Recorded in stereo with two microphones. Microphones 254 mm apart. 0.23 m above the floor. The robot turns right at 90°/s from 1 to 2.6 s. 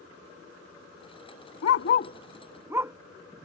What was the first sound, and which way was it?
A dog barking, 70° left (ahead or behind).